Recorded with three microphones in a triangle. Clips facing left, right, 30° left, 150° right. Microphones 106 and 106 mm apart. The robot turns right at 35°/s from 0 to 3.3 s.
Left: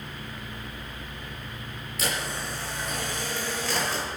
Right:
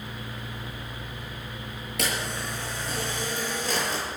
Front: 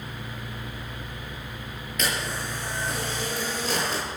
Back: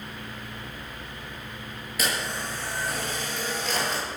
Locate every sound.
2.0 s a camera shutter: 65° right, 9 m; by 4.0 s 20° right, 9 m